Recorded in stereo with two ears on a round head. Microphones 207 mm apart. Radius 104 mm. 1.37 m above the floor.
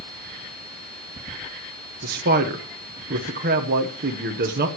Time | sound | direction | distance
2.0 | a man speaking | 45° right (ahead or behind) | 1.1 m